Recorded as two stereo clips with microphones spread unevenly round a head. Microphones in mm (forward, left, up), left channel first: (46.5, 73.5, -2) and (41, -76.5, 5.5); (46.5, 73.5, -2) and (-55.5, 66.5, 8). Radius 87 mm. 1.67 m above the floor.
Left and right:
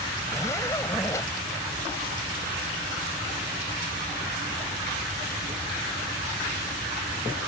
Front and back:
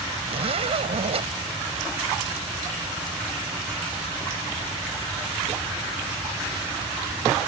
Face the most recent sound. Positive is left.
turn(degrees=165)